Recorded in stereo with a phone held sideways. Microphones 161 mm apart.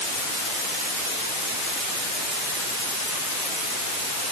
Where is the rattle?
I don't hear a rattle.